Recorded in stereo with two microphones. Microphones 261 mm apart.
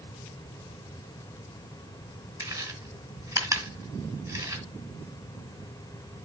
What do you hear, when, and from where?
2.4 s chewing: 10° right (ahead or behind), 1.7 m